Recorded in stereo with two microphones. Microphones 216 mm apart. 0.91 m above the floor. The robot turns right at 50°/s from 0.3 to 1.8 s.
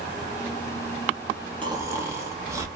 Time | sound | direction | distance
1.6 | snoring | 25° right (ahead or behind) | 0.7 m